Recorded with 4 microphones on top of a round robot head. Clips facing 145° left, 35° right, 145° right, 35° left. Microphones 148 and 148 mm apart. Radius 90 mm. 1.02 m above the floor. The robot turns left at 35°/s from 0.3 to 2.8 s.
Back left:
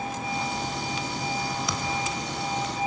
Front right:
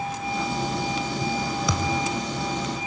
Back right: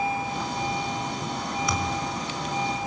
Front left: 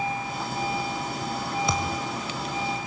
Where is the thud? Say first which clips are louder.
Front right 4 dB, even; 30° right, 2.5 m; by 2.1 s 45° right, 2.5 m.